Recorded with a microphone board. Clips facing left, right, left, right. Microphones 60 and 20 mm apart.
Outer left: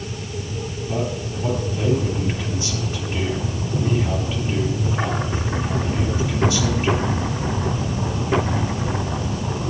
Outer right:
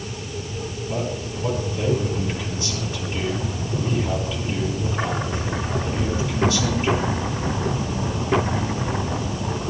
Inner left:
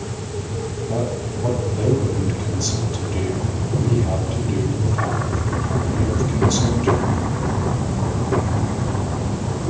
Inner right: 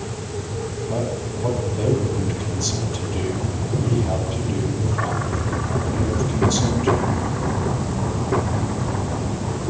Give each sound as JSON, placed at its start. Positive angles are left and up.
{"t": 0.9, "sound": "a man speaking", "side_deg": 25, "distance_m": 9.5}